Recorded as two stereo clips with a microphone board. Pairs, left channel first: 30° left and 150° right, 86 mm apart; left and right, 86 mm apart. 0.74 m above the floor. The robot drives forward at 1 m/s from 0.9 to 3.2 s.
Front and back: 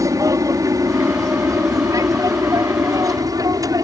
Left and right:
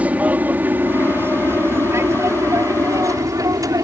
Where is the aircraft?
150° right; by 3.9 s 115° right.